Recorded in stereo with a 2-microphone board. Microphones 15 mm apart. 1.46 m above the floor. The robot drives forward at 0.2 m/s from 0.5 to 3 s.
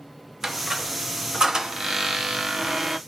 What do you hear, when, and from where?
0.4 s a squeak: 40° right (ahead or behind), 0.5 m